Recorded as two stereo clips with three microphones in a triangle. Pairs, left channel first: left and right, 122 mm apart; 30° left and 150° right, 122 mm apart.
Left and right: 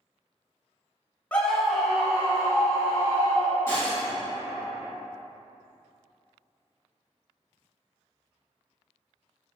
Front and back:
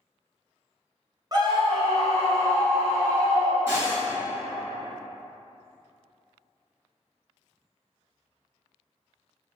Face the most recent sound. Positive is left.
turn(degrees=155)